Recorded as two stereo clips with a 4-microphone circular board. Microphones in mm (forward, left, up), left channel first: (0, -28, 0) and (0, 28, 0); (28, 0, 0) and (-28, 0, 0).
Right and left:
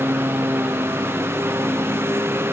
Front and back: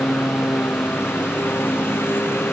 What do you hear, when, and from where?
0.0 s a lawn mower: 50° left; by 2.5 s 45° left